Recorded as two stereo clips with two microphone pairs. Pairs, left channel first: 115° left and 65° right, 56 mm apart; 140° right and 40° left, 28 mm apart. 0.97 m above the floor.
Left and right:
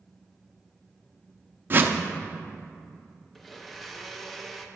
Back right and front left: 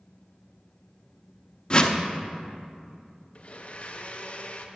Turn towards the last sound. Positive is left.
turn(degrees=-155)